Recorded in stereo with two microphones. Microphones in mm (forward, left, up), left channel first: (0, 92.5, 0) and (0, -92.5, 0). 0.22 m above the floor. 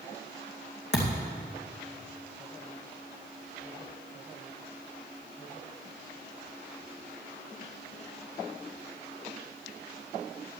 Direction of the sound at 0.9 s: 65° left (ahead or behind).